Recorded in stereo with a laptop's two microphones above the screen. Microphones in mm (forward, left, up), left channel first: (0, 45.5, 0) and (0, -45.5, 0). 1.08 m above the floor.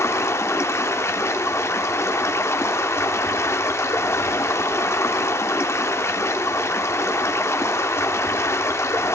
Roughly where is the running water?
Left.